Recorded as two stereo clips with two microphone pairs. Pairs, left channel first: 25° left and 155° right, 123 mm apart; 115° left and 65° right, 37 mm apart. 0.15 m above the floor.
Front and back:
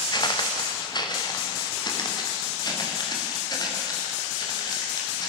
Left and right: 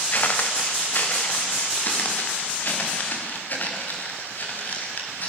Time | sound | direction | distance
0.1 | footsteps | 75° left | 2.5 m